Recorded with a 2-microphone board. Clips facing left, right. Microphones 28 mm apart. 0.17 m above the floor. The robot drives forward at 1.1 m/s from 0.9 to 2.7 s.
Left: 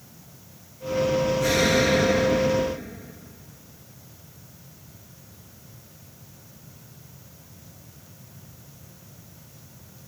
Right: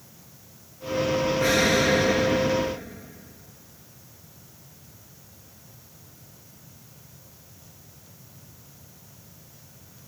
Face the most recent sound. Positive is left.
turn(degrees=-40)  # may be behind; listen again after turning